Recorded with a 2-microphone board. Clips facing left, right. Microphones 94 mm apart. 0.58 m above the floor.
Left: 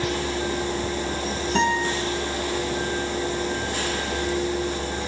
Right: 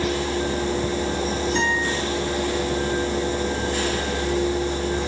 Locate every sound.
1.6 s a guitar: 70° left (ahead or behind), 5.5 m